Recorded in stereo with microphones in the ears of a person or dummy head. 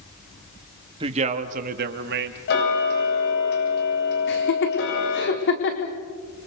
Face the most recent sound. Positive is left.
turn(degrees=55)  # may be behind; listen again after turning